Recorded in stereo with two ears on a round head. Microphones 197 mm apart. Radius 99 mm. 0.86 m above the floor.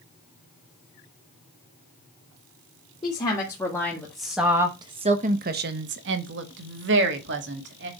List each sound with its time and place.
3.0 s a woman speaking: 20° left (ahead or behind), 2 m; by 7.9 s 55° right (ahead or behind), 2.5 m